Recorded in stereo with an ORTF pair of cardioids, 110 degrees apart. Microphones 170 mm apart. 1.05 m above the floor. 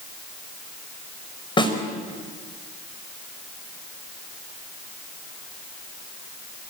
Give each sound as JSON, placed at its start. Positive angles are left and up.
{"t": 1.6, "sound": "a snare drum", "azimuth_deg": 30, "distance_m": 5.0}